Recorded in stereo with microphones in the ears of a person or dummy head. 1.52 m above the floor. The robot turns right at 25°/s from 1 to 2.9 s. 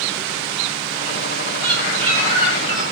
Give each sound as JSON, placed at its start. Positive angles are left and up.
{"t": 1.6, "sound": "a bird", "azimuth_deg": -65, "distance_m": 6.5}